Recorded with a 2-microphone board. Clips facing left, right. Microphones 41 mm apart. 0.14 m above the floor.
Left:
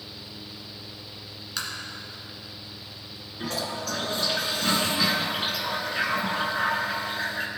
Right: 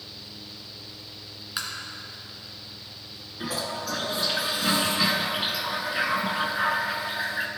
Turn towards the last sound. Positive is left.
turn(degrees=-10)  # may be behind; listen again after turning